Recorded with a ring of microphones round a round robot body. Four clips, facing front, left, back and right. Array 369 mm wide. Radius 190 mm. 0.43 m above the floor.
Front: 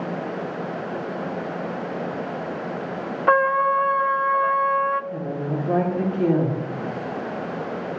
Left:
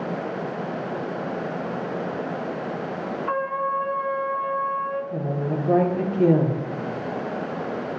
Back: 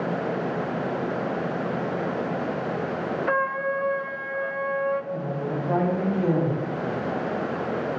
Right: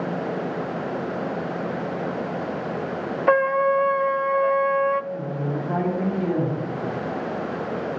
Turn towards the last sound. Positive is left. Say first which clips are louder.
# left 1 dB, front 1 dB
turn(degrees=55)